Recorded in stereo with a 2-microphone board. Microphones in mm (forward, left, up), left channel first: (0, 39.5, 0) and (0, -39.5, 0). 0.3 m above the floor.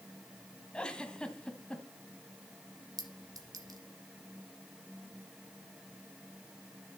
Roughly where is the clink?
Right.